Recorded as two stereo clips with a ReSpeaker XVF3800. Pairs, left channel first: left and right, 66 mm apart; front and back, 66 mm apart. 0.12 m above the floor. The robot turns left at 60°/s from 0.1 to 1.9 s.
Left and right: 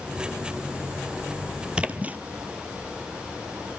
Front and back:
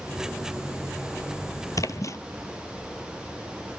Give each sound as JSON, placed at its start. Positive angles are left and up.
{"t": 1.8, "sound": "a splash", "azimuth_deg": -15, "distance_m": 0.9}